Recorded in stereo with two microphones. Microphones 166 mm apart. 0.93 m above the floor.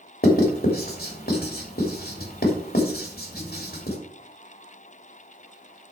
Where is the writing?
65° left (ahead or behind), 2.5 m.